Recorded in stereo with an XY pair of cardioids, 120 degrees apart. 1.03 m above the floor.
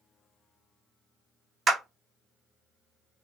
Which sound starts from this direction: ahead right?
A clap, at 1.7 s.